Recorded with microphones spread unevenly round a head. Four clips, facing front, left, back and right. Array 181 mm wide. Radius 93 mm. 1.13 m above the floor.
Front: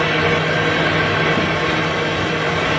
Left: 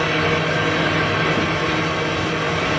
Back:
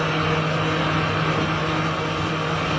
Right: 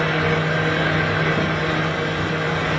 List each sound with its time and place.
0.0 s a fan: 5° left, 3 m